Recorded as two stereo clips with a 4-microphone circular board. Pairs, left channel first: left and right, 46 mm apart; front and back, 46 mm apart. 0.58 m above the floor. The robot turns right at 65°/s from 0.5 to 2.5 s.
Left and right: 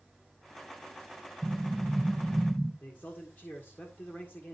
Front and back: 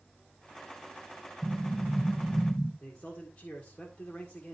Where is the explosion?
60° right, 1.8 m; by 2.7 s 10° left, 1.8 m.